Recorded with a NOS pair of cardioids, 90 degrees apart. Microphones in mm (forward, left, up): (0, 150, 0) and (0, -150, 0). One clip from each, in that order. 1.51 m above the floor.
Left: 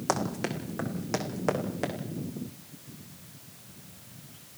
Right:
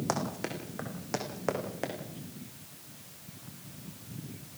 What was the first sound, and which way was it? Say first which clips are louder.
Running footsteps: left 5 dB; 25° left.